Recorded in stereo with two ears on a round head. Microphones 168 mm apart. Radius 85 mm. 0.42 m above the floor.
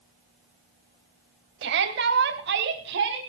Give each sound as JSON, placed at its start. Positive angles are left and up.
{"t": 1.6, "sound": "a shout", "side_deg": -65, "distance_m": 2.0}